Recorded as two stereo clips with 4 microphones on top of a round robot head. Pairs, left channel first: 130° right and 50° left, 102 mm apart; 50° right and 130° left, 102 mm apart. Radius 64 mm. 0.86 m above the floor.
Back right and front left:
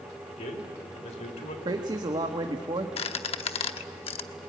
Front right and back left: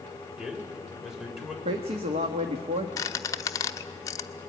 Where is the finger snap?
I don't hear a finger snap.